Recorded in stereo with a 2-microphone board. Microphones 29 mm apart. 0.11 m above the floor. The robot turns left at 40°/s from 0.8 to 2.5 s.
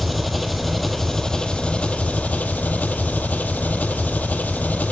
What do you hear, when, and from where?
0.0 s an engine running: 175° left, 0.7 m; by 4.9 s 105° left, 0.7 m